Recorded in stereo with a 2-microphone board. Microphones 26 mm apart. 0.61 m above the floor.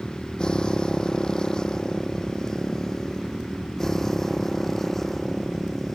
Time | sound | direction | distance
0.0 | a motorcycle | 30° left (ahead or behind) | ?